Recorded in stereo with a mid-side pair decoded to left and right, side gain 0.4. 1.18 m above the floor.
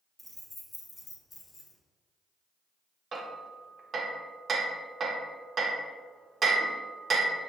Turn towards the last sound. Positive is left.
turn(degrees=-45)